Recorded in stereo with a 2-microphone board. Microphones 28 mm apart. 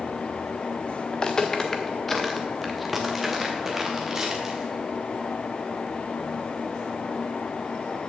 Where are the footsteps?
30° left (ahead or behind), 1.1 m; by 4.7 s 20° right (ahead or behind), 2.5 m.